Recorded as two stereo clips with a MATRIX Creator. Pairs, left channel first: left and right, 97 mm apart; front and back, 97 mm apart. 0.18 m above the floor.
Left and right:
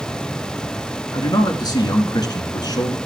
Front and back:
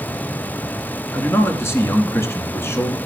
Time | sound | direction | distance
1.1 | a man speaking | 55° left | 2.5 m